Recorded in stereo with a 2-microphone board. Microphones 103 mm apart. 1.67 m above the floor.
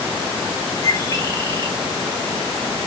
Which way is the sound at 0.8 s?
35° left (ahead or behind).